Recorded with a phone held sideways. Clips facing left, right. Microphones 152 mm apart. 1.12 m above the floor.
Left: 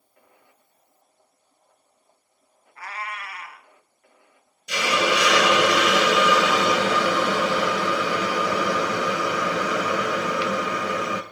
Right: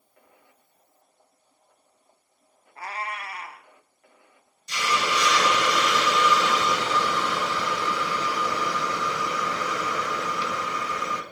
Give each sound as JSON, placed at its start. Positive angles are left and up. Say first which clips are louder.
{"t": 2.8, "sound": "a cat meowing", "louder": "right 1 dB", "side_deg": -30, "distance_m": 0.6}
{"t": 4.7, "sound": "a hiss", "louder": "left 4 dB", "side_deg": 75, "distance_m": 0.7}